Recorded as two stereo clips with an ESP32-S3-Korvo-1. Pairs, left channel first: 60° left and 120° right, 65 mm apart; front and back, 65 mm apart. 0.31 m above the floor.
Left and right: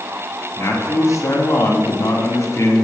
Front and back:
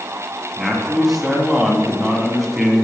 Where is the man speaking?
95° left, 2.5 m.